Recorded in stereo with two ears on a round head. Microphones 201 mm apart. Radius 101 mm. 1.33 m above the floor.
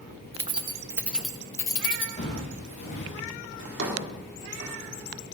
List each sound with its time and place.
0.3 s keys jangling: 30° right (ahead or behind), 1.0 m; by 2.1 s 25° left (ahead or behind), 0.9 m
2.2 s footsteps: 30° left (ahead or behind), 6.5 m; by 3.2 s 35° left (ahead or behind), 6 m
3.6 s a drawer: 55° right (ahead or behind), 2 m